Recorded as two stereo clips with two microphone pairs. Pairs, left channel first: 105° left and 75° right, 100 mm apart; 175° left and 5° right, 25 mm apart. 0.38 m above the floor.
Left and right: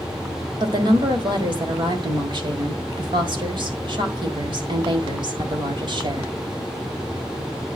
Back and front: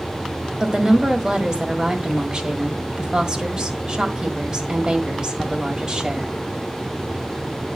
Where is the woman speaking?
60° right, 1.6 m.